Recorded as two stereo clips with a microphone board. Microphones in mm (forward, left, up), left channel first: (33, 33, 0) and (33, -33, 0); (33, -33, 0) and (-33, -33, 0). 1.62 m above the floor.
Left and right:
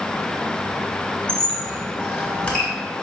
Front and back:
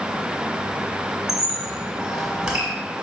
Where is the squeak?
120° left, 1.5 m.